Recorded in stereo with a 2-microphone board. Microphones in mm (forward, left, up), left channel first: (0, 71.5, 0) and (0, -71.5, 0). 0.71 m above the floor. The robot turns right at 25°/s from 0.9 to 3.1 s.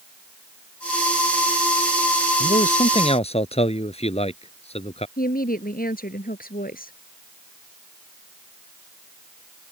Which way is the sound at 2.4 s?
60° left (ahead or behind).